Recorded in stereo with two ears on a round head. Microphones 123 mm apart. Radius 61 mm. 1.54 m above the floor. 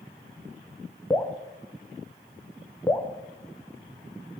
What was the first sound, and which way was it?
Dripping, 15° left (ahead or behind).